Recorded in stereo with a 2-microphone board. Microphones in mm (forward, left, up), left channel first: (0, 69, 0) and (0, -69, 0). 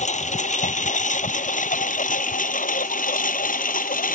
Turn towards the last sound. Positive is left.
turn(degrees=80)